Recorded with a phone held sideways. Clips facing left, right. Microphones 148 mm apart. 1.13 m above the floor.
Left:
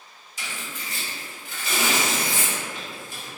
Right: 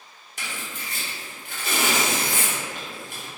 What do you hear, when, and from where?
0.4 s tearing paper: 60° right (ahead or behind), 0.9 m